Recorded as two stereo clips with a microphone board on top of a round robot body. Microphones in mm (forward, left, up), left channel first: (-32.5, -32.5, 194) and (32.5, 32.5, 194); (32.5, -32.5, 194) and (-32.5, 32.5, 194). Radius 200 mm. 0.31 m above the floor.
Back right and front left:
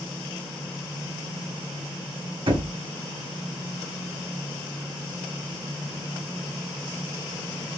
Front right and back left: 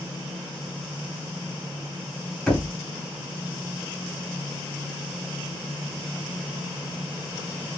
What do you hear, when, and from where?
2.5 s knocking: 40° left, 3 m